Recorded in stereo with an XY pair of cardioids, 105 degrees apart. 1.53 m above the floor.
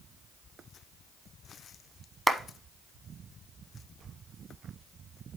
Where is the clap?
5° right, 1.0 m.